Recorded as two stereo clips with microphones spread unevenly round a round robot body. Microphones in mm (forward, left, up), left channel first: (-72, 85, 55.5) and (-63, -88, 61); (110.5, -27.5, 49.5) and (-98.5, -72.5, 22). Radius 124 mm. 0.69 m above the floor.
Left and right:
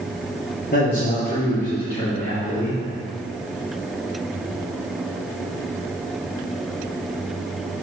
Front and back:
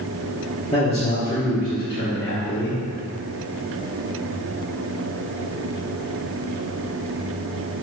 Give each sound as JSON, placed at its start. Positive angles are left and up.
{"t": 0.7, "sound": "a man speaking", "azimuth_deg": 80, "distance_m": 1.9}